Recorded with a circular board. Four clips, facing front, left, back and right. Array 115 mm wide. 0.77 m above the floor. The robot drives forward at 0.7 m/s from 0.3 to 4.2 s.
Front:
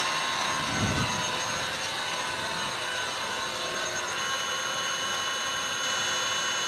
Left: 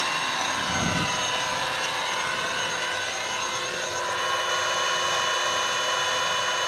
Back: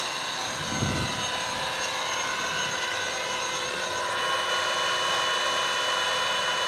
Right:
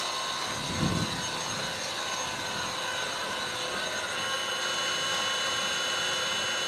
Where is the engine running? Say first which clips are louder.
Left 6 dB, front 3 dB; 70° left, 1.7 m; by 6.7 s 145° left, 2.5 m.